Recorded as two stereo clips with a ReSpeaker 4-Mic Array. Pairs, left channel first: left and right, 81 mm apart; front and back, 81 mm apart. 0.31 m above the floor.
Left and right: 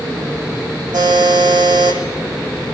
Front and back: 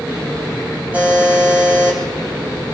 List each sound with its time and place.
0.9 s a buzzer: 110° right, 6.5 m